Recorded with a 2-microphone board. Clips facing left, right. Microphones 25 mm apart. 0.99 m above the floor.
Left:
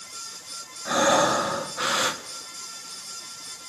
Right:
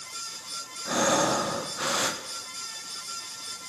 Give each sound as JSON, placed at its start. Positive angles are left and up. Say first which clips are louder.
{"t": 0.8, "sound": "breathing", "louder": "left 4 dB", "side_deg": 20, "distance_m": 0.9}